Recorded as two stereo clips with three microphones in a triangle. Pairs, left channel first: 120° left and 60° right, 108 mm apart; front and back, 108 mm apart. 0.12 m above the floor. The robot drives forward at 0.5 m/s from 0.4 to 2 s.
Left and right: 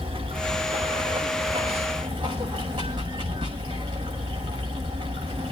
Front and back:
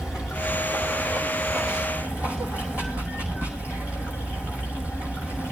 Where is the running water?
95° right, 6.5 m; by 5.5 s 105° right, 6.5 m.